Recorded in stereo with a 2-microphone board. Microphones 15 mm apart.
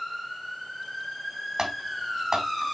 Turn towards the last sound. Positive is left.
turn(degrees=-45)  # may be behind; listen again after turning